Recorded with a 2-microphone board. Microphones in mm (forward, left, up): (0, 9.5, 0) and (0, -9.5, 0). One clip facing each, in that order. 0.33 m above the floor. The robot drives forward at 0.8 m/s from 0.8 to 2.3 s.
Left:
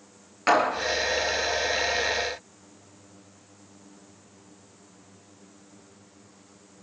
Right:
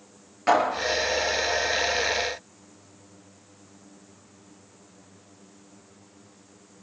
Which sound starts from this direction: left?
A clap, at 0.5 s.